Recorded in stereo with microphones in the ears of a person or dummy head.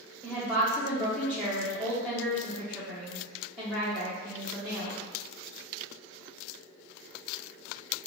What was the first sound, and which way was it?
A woman speaking, 5° right (ahead or behind).